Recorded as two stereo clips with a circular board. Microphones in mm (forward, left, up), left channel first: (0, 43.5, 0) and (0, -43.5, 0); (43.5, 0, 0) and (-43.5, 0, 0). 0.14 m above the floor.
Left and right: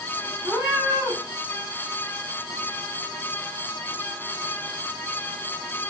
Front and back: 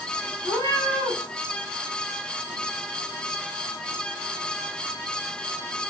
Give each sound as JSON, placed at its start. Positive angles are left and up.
{"t": 0.4, "sound": "a cat meowing", "azimuth_deg": -10, "distance_m": 5.0}